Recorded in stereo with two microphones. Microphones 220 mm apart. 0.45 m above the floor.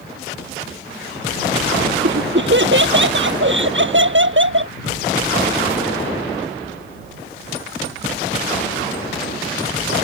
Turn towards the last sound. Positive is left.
turn(degrees=-60)  # may be behind; listen again after turning